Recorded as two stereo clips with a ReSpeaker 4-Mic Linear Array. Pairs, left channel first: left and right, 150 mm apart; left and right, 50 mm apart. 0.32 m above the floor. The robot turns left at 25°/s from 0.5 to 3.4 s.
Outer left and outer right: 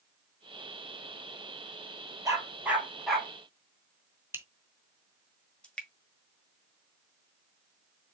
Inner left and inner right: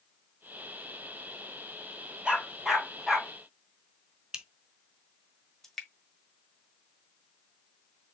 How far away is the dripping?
About 1.4 m.